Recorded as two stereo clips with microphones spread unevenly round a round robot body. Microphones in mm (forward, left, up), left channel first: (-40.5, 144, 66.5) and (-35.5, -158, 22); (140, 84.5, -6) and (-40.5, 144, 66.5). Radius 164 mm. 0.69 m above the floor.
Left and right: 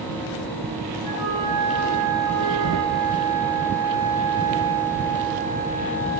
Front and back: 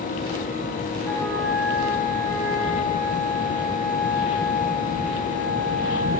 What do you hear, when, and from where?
1.0 s a flute: 105° right, 9.5 m